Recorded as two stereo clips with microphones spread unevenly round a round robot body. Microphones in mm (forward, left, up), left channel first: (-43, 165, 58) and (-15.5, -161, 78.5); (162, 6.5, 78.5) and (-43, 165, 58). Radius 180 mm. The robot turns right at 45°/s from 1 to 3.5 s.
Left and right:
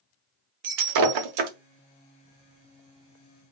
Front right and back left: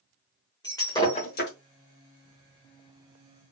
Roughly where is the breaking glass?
Behind right.